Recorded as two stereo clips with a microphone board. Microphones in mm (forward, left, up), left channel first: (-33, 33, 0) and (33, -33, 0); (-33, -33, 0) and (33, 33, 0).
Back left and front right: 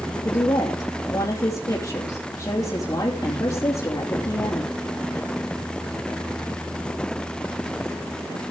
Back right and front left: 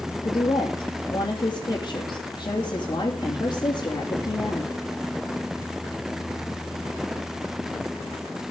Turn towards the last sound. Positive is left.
turn(degrees=-175)